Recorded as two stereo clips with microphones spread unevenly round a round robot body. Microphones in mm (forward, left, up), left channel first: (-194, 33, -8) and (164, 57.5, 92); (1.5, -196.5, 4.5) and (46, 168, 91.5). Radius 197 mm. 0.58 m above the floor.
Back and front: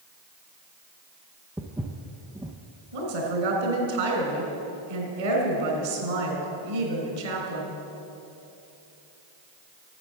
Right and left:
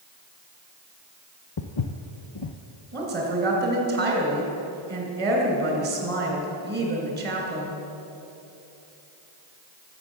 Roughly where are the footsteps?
Ahead right.